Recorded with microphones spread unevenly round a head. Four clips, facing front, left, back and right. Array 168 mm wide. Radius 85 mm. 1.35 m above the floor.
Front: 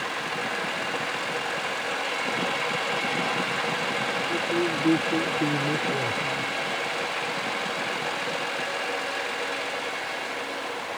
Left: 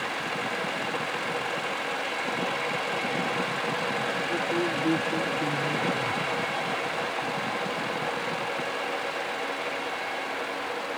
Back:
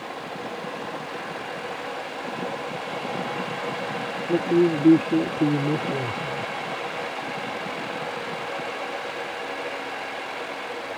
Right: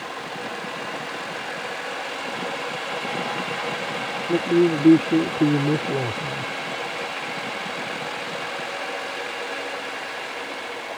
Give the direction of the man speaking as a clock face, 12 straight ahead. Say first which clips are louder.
Right 12 dB, back 9 dB; 4 o'clock.